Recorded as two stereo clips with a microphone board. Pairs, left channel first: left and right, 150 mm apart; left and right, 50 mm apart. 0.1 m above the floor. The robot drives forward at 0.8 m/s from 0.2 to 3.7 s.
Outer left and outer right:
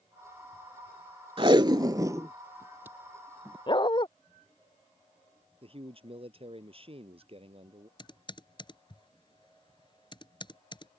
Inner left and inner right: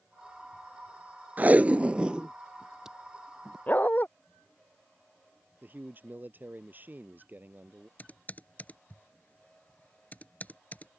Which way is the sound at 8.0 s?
30° left (ahead or behind).